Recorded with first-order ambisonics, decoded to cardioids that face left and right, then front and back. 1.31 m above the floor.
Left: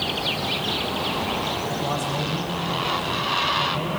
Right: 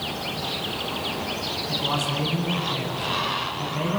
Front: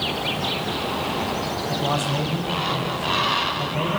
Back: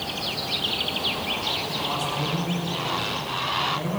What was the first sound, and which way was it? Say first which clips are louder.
A man speaking: right 1 dB, front 3 dB; 15° left.